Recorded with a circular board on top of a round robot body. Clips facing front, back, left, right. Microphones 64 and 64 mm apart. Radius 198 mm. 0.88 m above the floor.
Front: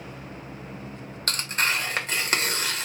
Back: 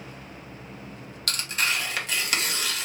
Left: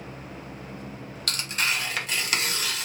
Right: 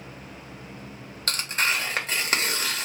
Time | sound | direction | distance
1.3 | tearing paper | 45° right | 1.3 m